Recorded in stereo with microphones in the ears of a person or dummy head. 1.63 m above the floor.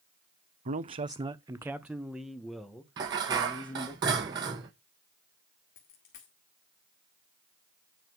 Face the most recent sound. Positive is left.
turn(degrees=55)  # may be behind; listen again after turning